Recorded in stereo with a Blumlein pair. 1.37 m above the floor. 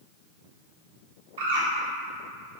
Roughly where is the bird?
Ahead right.